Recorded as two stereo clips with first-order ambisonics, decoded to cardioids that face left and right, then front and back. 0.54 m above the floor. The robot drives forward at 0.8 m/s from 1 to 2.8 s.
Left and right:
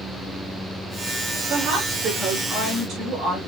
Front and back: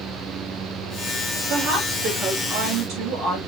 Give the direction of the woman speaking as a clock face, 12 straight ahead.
5 o'clock.